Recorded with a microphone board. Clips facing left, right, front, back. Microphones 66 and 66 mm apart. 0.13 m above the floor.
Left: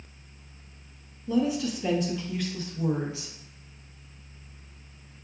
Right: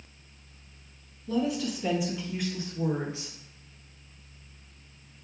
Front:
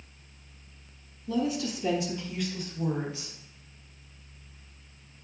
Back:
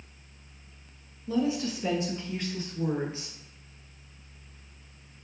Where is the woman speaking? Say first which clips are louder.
Left 3 dB, back 1 dB; 155° left, 1.2 m; by 3.3 s 135° right, 1.8 m.